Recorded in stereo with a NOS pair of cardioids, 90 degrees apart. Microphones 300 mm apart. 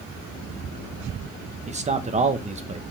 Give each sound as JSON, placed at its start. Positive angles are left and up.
{"t": 1.7, "sound": "a man speaking", "azimuth_deg": -25, "distance_m": 1.2}